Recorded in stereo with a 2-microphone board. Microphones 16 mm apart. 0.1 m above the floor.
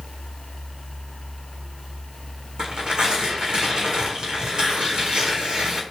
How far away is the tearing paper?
About 1.3 m.